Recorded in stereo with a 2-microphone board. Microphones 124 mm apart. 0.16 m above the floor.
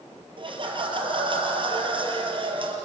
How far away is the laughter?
About 4.5 m.